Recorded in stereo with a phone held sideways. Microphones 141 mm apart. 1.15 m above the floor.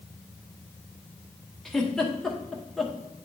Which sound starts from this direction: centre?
A giggle, at 1.6 s.